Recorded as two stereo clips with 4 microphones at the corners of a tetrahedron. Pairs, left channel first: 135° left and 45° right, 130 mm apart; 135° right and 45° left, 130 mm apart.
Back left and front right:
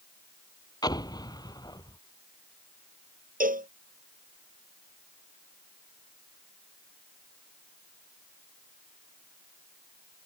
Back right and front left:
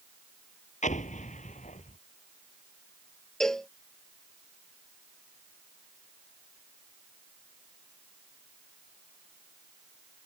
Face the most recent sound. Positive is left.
turn(degrees=-50)